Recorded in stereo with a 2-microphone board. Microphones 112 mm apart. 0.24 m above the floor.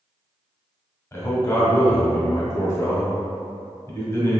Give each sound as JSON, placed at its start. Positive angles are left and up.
{"t": 1.1, "sound": "a man speaking", "side_deg": 25, "distance_m": 1.1}